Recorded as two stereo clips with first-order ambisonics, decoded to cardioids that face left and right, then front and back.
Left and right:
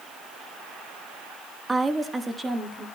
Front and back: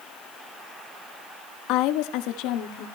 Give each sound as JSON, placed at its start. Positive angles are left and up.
{"t": 1.7, "sound": "a woman speaking", "azimuth_deg": -10, "distance_m": 1.0}